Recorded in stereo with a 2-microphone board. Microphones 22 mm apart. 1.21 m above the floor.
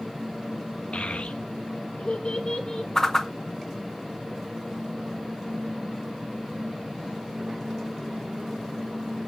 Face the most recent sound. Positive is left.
turn(degrees=25)  # may be behind; listen again after turning